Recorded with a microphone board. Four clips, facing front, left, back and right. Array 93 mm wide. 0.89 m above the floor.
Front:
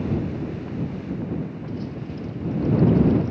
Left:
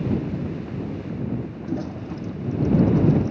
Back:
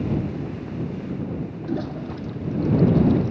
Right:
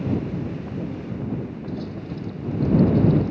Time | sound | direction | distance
1.6 | a toilet flushing | 160° left | ?